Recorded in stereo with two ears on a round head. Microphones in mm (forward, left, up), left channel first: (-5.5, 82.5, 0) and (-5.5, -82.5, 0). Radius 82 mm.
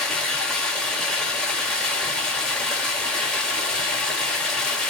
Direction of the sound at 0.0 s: 5° left (ahead or behind).